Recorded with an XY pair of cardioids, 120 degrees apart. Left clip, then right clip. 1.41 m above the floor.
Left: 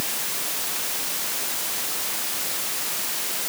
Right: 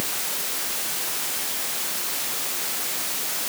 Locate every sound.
Only background noise.